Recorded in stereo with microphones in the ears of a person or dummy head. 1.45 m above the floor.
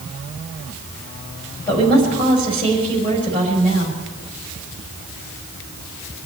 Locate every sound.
1.7 s a woman speaking: 30° left (ahead or behind), 6 m